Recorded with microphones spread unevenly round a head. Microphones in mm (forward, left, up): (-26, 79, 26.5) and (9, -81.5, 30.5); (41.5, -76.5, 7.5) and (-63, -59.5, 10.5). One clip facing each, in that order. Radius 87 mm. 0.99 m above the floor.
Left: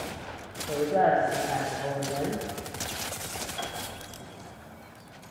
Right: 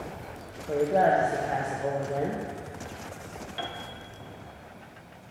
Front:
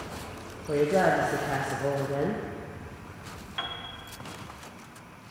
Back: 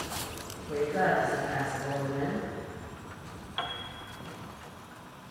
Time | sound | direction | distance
0.7 | a woman speaking | straight ahead | 0.6 m
3.6 | a piano | 130° right | 0.6 m